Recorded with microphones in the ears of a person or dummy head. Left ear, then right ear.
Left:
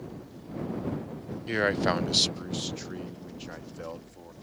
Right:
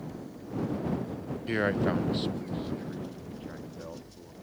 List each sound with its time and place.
1.5 s a man speaking: centre (ahead or behind); by 4.3 s 75° left (ahead or behind)